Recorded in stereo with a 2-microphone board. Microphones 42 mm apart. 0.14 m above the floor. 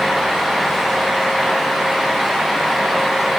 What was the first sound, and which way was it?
Only background noise.